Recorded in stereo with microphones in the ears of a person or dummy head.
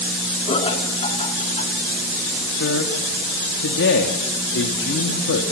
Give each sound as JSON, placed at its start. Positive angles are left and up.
{"t": 0.5, "sound": "laughter", "side_deg": 30, "distance_m": 4.0}
{"t": 2.5, "sound": "a man speaking", "side_deg": 65, "distance_m": 2.0}